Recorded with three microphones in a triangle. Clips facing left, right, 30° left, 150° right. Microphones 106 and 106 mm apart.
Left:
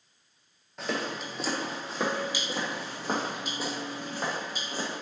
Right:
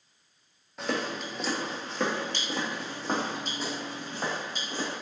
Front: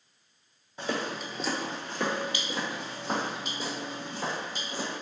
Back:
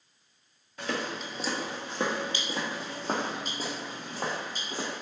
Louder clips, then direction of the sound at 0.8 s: Right 1 dB, front 1 dB; 5° right.